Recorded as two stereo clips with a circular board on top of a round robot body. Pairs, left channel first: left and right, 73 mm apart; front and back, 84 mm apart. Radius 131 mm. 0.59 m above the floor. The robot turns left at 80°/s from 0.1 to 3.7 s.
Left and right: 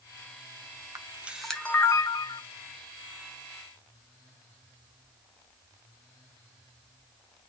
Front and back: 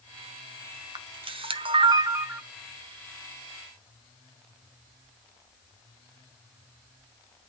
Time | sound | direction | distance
0.9 | a camera shutter | 140° right | 0.8 m